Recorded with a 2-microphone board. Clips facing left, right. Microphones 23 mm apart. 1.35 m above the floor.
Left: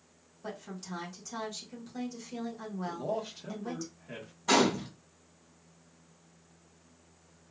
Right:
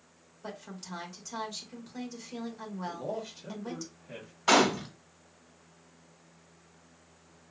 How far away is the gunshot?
About 1.2 m.